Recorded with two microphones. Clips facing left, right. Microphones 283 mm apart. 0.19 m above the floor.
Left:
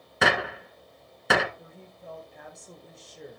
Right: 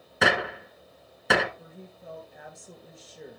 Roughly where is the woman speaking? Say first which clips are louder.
Right 2 dB; centre.